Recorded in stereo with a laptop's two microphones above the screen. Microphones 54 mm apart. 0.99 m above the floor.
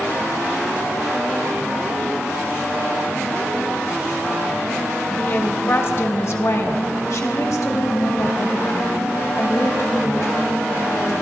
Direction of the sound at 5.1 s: 30° left (ahead or behind).